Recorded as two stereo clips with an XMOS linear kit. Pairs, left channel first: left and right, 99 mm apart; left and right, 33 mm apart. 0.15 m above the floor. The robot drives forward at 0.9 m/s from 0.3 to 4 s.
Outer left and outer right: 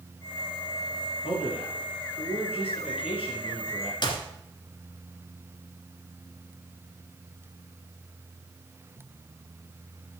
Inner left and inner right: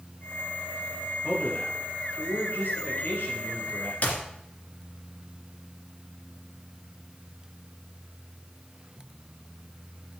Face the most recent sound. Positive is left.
turn(degrees=50)  # may be behind; listen again after turning